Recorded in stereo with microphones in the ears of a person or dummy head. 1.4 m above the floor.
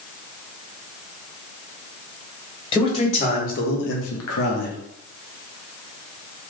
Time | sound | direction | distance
2.7 | a man speaking | 20° left (ahead or behind) | 1.4 m